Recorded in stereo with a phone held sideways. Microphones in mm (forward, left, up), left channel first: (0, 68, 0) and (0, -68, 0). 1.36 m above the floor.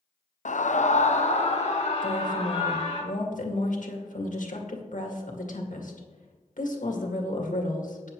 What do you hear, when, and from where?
0.5 s a scream: 65° left (ahead or behind), 0.6 m; by 3.0 s 50° left (ahead or behind), 3.5 m
2.0 s a woman speaking: 70° left (ahead or behind), 1.9 m